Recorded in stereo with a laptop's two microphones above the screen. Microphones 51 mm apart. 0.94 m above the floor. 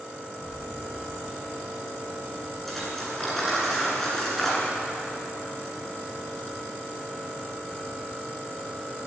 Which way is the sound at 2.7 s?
5° left (ahead or behind).